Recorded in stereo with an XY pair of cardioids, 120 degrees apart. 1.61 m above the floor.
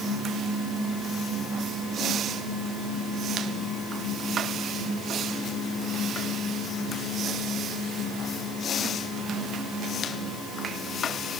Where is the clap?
I don't hear a clap.